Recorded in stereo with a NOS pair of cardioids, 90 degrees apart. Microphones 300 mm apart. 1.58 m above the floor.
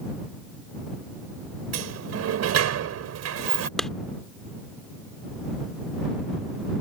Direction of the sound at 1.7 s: 60° right.